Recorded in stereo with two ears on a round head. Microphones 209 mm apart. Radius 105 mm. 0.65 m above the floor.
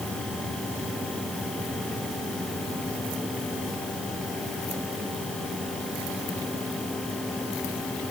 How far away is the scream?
I don't hear a scream.